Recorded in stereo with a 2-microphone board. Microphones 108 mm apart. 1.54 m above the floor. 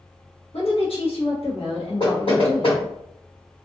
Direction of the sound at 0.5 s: 65° left (ahead or behind).